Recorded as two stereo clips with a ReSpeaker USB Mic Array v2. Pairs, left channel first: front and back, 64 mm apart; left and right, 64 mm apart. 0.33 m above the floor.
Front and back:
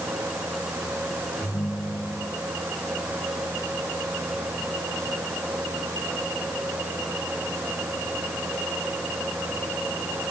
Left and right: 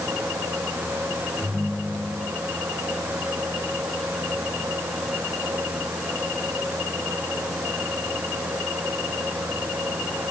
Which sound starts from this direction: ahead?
A ringtone, at 1.4 s.